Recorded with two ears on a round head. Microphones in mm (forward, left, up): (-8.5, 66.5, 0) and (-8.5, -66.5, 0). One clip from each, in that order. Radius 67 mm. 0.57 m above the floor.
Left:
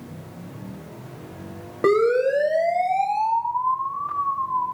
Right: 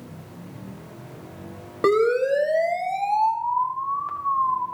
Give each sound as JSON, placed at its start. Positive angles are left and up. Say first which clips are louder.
{"t": 1.8, "sound": "a siren", "louder": "left 1 dB", "side_deg": -25, "distance_m": 3.0}